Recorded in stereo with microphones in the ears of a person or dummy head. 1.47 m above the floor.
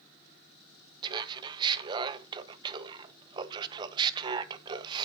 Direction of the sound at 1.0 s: 30° right (ahead or behind).